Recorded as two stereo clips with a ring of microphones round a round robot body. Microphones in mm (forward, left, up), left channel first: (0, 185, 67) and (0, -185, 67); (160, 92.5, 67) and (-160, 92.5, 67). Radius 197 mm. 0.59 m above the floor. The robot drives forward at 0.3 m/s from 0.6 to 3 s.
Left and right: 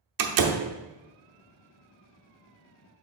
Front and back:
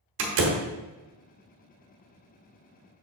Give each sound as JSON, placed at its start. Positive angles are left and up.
{"t": 0.2, "sound": "a door slam", "azimuth_deg": -125, "distance_m": 0.9}